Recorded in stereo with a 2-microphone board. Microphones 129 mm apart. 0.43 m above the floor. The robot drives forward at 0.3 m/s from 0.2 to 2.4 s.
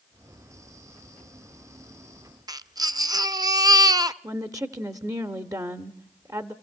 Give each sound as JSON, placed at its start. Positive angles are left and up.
{"t": 2.5, "sound": "a baby crying", "side_deg": -30, "distance_m": 0.5}
{"t": 4.2, "sound": "a woman speaking", "side_deg": -25, "distance_m": 0.8}